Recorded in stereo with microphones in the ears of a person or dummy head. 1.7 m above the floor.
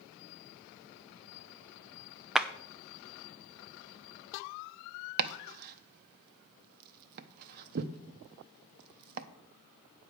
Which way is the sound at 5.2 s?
45° right (ahead or behind).